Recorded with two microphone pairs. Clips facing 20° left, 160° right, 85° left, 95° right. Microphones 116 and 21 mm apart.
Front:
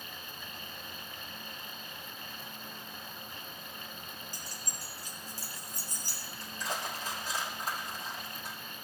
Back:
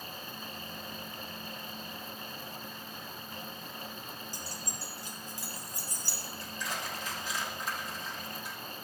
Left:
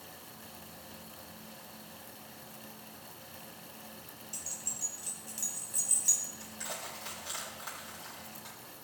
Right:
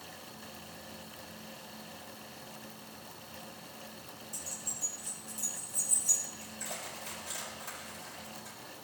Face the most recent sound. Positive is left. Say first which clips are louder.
# front 2 dB, even
turn(degrees=70)